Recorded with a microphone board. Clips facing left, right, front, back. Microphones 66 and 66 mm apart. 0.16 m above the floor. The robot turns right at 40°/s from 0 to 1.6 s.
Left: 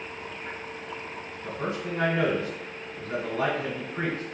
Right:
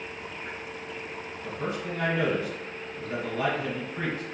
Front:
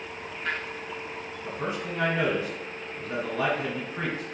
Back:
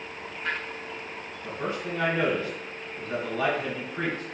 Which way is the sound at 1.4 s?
50° left.